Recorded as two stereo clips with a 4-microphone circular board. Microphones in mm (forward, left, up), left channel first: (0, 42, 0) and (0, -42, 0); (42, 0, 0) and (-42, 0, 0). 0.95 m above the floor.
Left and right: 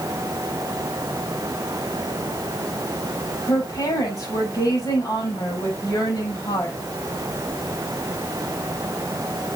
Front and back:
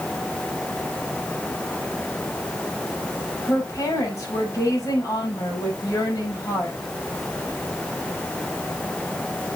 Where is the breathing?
I don't hear breathing.